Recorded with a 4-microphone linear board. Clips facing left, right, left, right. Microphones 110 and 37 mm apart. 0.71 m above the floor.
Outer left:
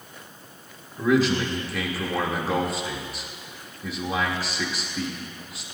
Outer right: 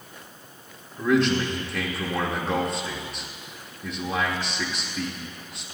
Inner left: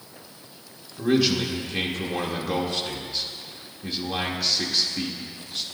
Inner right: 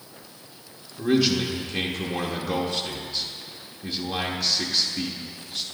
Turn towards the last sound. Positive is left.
turn(degrees=5)  # may be behind; listen again after turning